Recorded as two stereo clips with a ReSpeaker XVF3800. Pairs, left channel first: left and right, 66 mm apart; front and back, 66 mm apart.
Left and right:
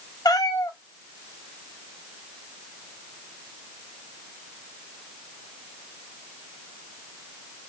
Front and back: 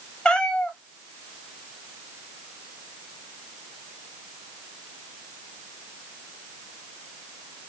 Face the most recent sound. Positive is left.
turn(degrees=75)